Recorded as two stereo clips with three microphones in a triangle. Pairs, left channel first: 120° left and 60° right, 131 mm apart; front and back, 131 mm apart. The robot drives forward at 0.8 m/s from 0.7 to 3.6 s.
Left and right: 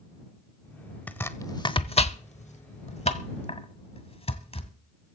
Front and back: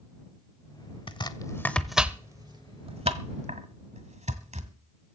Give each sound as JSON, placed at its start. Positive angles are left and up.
{"t": 1.1, "sound": "chopping", "azimuth_deg": 45, "distance_m": 1.0}